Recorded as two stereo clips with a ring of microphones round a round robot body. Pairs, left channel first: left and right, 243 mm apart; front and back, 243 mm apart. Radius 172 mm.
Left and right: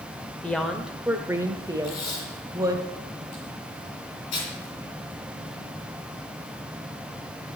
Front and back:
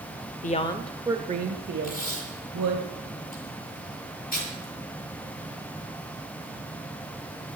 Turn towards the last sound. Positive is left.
turn(degrees=55)